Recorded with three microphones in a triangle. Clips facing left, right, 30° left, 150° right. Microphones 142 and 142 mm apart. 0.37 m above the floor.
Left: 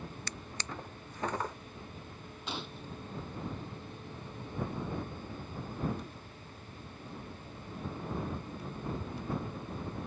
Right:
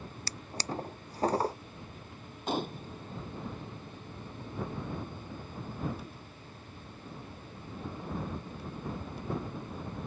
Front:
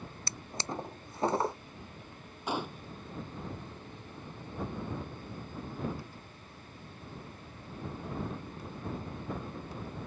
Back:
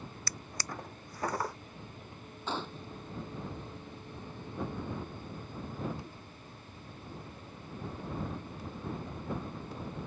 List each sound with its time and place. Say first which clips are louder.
0.3 s a drawer: right 5 dB, front 5 dB; 35° right
2.5 s a gunshot: right 9 dB, front 3 dB; 50° right